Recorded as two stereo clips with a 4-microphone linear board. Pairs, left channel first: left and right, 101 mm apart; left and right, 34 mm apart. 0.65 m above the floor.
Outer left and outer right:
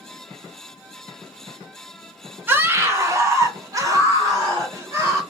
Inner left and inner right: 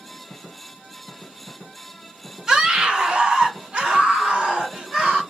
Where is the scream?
20° right (ahead or behind), 0.6 m; by 5.2 s 30° right (ahead or behind), 1.8 m.